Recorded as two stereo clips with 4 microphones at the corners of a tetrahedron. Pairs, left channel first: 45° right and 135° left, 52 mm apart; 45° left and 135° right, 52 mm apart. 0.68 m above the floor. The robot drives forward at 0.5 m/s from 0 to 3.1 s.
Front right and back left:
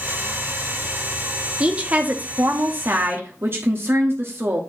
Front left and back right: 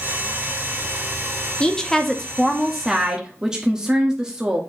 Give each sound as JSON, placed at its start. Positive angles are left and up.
{"t": 1.6, "sound": "a woman speaking", "azimuth_deg": 95, "distance_m": 0.9}